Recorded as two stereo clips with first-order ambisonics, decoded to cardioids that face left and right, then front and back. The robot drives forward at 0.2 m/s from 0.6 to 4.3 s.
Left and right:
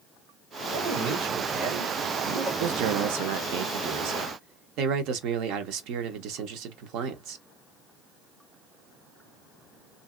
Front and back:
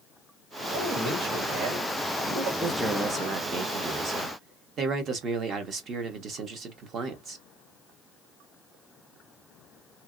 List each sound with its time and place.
0.7 s a man speaking: 140° right, 1.9 m; by 2.5 s 145° right, 2 m
2.6 s a man speaking: 95° right, 0.6 m; by 7.4 s 125° right, 0.8 m